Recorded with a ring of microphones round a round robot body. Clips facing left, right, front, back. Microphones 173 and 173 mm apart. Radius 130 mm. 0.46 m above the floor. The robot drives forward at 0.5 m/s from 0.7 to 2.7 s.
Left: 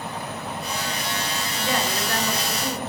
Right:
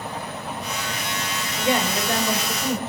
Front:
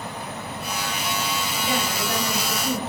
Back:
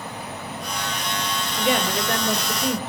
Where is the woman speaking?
160° right, 2 m; by 2.8 s 165° right, 2.5 m.